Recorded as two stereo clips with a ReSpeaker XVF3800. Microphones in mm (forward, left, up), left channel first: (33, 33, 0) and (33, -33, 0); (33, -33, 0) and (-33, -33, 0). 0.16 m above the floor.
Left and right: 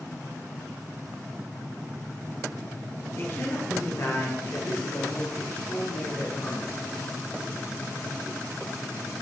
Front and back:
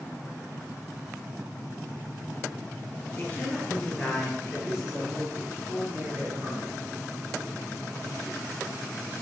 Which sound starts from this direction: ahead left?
A woman speaking, at 3.2 s.